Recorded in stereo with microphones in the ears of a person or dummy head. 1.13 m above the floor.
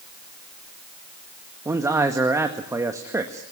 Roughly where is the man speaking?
Centre.